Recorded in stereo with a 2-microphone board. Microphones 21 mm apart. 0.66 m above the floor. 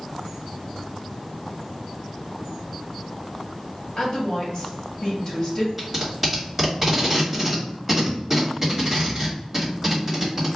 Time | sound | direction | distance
4.0 | a woman speaking | 45° left (ahead or behind) | 1.5 m
5.8 | tape being pulled | 5° right (ahead or behind) | 1.9 m